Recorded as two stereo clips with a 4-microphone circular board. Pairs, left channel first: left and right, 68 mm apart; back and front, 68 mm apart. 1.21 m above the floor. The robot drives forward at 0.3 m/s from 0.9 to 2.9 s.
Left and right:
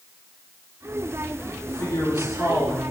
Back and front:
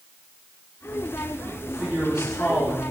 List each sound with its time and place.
1.6 s a man speaking: 75° left, 3.5 m; by 2.9 s 80° left, 3.5 m